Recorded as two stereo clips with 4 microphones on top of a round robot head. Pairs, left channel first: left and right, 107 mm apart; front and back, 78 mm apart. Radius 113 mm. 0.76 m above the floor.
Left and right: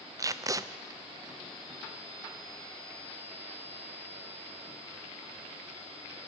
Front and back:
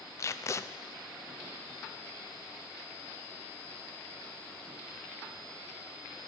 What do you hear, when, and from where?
0.2 s tape being pulled: 40° right, 0.6 m